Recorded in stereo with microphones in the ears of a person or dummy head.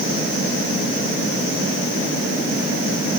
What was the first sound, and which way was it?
Only background noise.